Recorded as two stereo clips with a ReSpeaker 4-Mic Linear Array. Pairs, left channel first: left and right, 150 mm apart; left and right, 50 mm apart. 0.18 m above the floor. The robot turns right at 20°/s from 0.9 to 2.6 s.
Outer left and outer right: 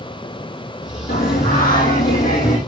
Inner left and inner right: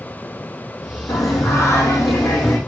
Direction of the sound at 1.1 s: 80° left.